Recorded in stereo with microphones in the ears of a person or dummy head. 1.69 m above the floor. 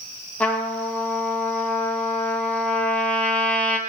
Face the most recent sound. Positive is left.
turn(degrees=5)  # may be behind; listen again after turning